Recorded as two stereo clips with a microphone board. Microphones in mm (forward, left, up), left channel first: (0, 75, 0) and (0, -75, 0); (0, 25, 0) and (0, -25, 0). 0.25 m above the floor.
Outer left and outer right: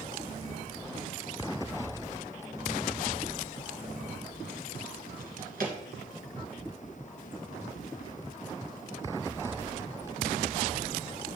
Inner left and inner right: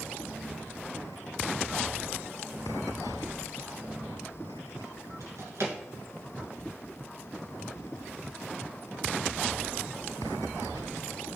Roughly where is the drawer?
Right.